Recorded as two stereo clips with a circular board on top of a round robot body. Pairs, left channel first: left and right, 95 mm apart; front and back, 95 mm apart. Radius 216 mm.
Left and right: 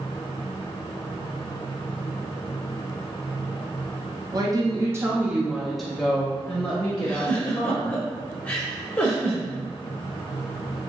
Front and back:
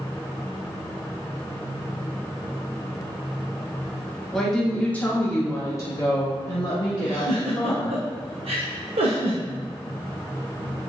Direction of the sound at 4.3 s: 85° right.